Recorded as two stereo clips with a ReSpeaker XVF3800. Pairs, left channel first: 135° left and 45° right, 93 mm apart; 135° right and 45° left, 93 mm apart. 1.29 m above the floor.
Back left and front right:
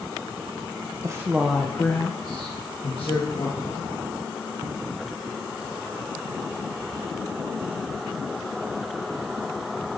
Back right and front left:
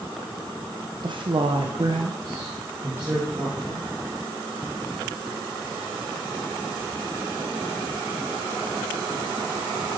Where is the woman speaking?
10° left, 0.8 m; by 3.9 s 120° left, 2 m.